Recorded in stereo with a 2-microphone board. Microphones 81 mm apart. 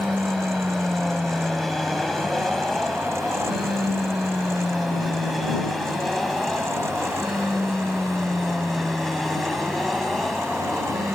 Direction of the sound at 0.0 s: 5° left (ahead or behind).